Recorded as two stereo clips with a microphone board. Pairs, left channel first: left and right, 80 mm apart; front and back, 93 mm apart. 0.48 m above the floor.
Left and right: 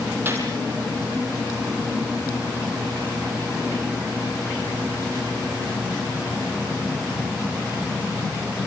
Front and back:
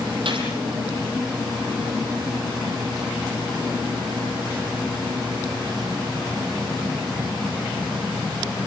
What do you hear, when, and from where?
0.2 s a gunshot: 155° right, 6.5 m